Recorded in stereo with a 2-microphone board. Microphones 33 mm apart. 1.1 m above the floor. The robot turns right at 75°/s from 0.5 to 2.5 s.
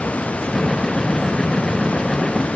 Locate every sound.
Only background noise.